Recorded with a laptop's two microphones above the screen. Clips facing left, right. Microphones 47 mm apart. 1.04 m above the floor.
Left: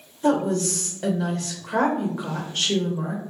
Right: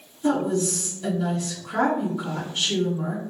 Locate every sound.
0.2 s a woman speaking: 50° left (ahead or behind), 0.7 m